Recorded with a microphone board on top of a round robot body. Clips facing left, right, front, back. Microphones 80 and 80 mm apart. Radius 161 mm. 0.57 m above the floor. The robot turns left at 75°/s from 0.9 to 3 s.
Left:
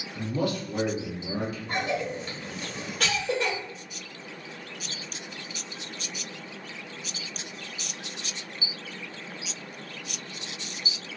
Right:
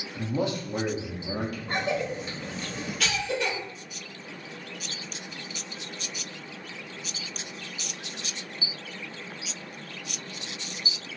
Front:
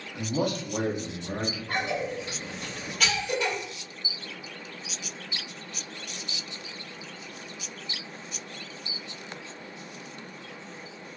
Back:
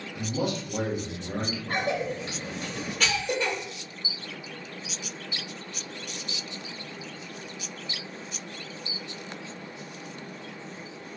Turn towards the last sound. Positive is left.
turn(degrees=135)